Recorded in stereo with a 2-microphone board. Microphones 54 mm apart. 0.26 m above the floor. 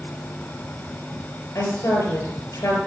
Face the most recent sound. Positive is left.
turn(degrees=60)  # may be behind; listen again after turning